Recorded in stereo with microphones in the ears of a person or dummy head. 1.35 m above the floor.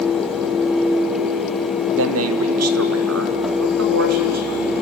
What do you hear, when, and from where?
1.9 s a man speaking: 70° right (ahead or behind), 0.9 m